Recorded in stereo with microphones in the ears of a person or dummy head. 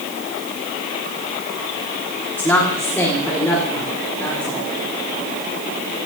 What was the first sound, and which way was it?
A woman speaking, 10° left (ahead or behind).